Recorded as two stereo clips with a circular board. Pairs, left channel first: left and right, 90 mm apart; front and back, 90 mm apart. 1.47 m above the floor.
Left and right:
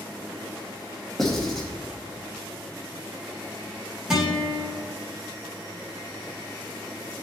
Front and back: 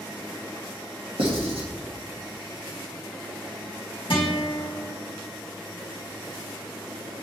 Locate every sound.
1.2 s writing: 175° left, 1.6 m
4.1 s a guitar: 10° right, 2 m